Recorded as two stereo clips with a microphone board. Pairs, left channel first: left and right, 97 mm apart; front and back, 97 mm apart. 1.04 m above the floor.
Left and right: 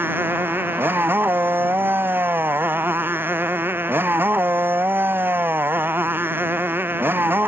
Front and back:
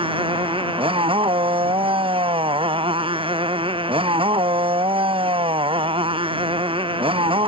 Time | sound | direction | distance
0.0 | a motorcycle | 160° right | ?